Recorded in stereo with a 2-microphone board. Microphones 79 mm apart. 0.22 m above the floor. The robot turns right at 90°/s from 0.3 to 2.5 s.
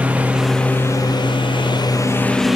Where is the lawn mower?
15° right; by 2.6 s straight behind.